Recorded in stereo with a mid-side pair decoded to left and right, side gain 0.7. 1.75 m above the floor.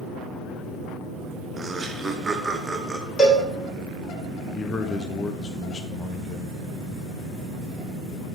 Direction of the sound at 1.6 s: 20° right.